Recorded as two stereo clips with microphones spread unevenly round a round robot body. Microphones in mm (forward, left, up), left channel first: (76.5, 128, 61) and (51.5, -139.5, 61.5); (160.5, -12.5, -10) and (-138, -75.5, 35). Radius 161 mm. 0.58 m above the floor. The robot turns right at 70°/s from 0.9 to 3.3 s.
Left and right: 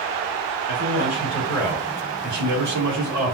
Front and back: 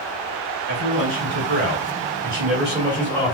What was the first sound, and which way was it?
A man speaking, 130° left.